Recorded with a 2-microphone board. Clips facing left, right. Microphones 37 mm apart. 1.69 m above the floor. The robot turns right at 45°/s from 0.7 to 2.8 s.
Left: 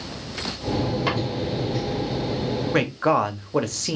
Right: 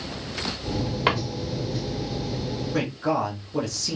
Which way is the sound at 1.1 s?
35° right (ahead or behind).